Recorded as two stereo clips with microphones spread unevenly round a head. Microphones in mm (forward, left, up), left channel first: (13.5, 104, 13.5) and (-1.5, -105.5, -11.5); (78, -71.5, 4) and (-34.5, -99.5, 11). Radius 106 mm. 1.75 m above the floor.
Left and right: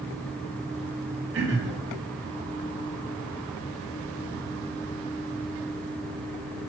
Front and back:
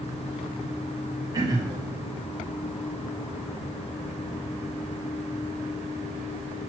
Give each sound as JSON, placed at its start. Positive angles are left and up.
{"t": 1.3, "sound": "throat clearing", "azimuth_deg": -120, "distance_m": 2.0}